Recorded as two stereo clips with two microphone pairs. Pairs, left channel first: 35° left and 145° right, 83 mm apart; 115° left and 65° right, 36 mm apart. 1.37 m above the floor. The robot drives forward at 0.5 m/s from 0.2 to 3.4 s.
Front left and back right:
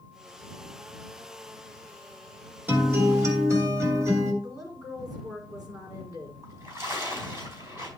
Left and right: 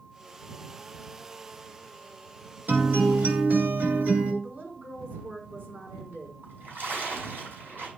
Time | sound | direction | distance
2.7 | a guitar | 80° right | 1.8 m
4.4 | a woman speaking | 100° right | 4 m
6.4 | a splash | 90° right | 5 m